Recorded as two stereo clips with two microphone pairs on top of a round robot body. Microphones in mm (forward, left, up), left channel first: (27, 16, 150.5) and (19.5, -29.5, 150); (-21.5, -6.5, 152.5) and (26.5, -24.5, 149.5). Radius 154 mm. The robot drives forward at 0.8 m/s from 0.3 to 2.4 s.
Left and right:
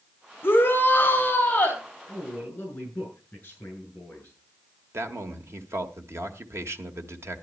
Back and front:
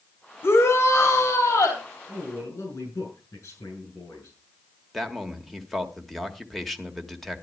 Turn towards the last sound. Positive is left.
turn(degrees=-110)